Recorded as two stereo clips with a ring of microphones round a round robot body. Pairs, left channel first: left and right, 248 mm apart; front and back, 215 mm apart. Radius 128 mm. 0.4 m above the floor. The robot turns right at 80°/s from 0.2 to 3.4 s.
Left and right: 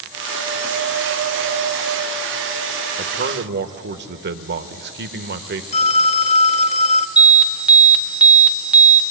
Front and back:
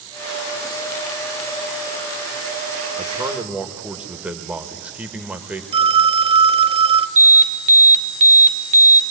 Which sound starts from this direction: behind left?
A phone ringing, at 5.7 s.